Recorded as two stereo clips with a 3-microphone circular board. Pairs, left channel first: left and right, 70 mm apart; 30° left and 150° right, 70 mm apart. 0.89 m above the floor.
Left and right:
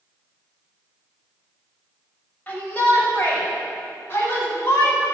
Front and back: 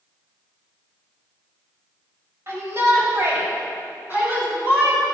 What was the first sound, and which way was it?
A shout, 160° left.